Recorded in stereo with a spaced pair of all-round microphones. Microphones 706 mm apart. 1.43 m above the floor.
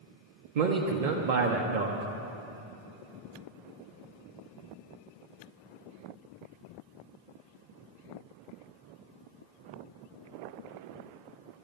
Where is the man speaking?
80° right, 0.8 m.